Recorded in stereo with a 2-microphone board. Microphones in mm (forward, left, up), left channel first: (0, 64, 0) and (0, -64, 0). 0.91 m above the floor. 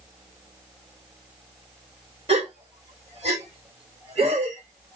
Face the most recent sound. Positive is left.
turn(degrees=-50)  # may be behind; listen again after turning